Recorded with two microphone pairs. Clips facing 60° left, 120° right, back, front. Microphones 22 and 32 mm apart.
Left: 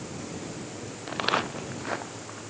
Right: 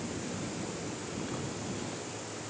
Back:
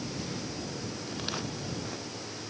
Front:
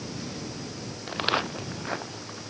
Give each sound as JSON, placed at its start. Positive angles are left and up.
{"t": 1.1, "sound": "footsteps", "azimuth_deg": 40}